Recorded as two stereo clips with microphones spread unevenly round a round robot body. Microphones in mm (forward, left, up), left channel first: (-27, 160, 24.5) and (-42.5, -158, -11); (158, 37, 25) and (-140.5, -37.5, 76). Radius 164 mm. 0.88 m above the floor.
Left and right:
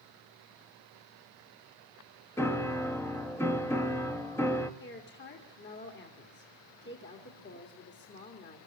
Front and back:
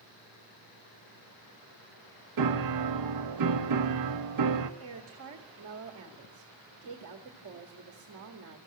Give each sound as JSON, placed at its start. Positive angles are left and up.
{"t": 2.4, "sound": "a piano", "azimuth_deg": 175, "distance_m": 1.3}
{"t": 4.8, "sound": "a woman speaking", "azimuth_deg": 145, "distance_m": 2.0}